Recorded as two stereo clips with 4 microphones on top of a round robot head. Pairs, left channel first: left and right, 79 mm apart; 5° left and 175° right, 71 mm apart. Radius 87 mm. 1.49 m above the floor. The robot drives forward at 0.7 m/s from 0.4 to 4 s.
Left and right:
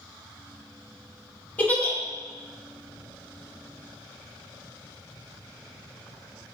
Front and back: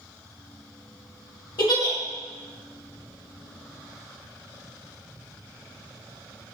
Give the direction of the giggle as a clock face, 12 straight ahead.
11 o'clock.